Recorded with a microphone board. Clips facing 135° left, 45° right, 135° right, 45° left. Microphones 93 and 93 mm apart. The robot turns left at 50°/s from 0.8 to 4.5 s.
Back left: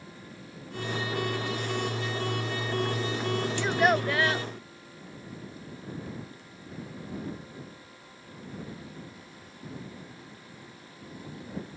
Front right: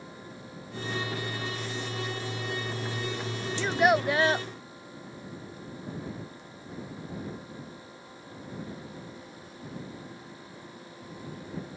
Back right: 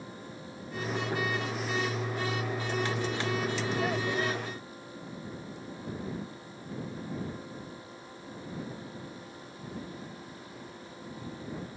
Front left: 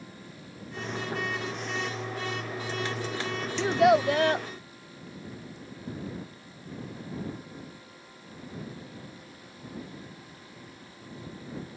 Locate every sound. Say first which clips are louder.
3.6 s a child speaking: front right 2 dB, front left 10 dB; 55° left; by 4.5 s 10° left